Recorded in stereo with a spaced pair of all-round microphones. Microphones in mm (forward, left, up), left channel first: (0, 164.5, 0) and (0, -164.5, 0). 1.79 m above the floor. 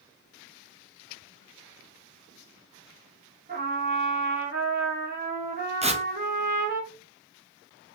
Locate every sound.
3.5 s a trumpet: 30° right (ahead or behind), 1.4 m
5.8 s tearing paper: 20° right (ahead or behind), 0.7 m